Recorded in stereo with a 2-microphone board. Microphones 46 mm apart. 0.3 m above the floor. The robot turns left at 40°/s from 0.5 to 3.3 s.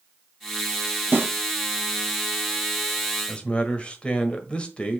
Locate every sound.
1.1 s a snare drum: 50° right (ahead or behind), 3 m; by 1.3 s 45° right (ahead or behind), 3 m
3.3 s a man speaking: 25° left (ahead or behind), 1.3 m